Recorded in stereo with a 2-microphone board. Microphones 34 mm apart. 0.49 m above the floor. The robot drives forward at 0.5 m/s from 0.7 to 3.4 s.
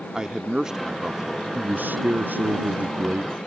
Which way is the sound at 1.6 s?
60° right (ahead or behind).